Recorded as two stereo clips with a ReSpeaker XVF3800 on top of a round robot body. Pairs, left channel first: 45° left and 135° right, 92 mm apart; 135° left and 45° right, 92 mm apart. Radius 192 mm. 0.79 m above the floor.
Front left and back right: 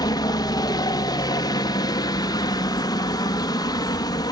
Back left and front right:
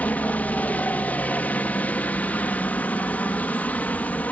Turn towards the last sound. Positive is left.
turn(degrees=65)